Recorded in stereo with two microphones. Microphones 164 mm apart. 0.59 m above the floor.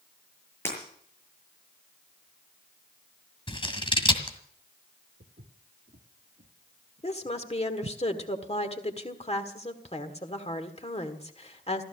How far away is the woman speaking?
About 1.6 m.